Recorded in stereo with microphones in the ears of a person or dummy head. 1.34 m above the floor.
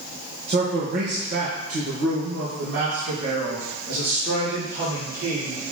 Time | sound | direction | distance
0.5 | a man speaking | 35° right (ahead or behind) | 1.1 m